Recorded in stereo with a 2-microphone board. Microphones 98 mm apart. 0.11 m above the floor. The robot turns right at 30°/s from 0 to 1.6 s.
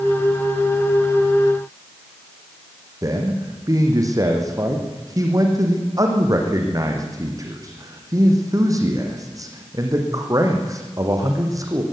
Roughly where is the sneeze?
No sneeze in this recording.